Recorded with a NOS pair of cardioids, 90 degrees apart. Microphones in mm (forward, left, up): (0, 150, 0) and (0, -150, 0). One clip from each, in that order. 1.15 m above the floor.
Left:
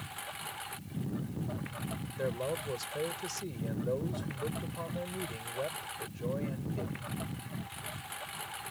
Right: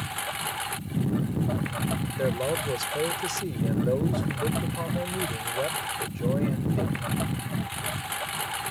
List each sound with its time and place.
0.0 s a lawn mower: 70° right
2.2 s a man speaking: 45° right